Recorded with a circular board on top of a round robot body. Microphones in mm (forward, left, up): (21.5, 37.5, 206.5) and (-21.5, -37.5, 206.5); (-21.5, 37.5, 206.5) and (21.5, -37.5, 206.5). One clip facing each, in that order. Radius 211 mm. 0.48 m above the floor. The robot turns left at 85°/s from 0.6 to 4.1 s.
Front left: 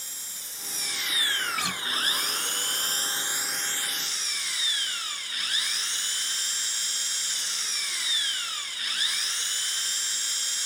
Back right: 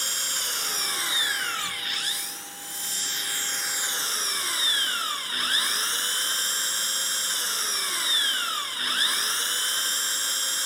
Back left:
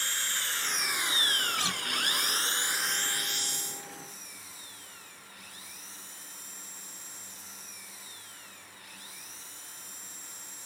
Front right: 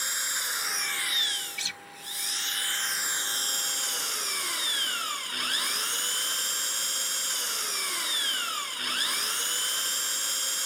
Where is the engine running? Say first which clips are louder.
Back right 14 dB, front right 1 dB; 135° right; by 10.7 s 75° right.